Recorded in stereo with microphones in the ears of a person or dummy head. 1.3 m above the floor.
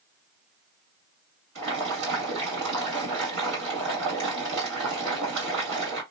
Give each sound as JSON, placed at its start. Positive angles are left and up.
{"t": 1.6, "sound": "boiling", "side_deg": -75, "distance_m": 2.0}